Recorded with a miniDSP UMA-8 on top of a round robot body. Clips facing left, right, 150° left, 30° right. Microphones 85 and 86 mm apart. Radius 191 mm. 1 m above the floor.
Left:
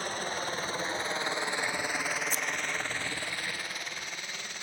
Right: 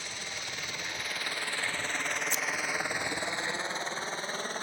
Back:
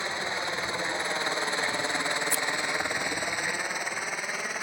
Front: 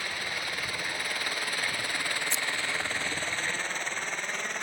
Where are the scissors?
40° left.